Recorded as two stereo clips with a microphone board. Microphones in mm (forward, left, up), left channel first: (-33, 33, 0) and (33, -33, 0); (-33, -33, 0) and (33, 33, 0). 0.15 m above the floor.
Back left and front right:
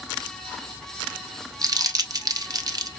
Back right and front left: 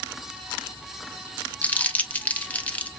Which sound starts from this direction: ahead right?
Crumpling, at 1.6 s.